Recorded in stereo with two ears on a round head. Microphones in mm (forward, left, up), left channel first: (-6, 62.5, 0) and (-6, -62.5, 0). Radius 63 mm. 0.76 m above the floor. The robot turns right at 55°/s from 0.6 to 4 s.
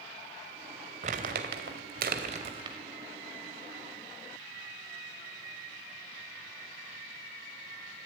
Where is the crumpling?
55° right (ahead or behind), 2.5 m; by 2.8 s 30° right (ahead or behind), 2.5 m.